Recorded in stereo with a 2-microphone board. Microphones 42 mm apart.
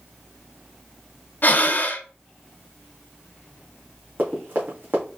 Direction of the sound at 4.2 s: 55° right (ahead or behind).